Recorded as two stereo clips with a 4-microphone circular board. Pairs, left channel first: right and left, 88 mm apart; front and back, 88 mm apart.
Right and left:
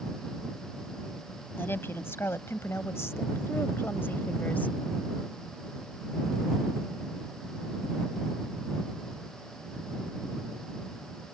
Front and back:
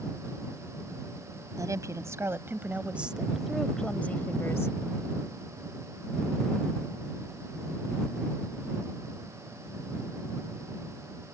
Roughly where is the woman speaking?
Behind right.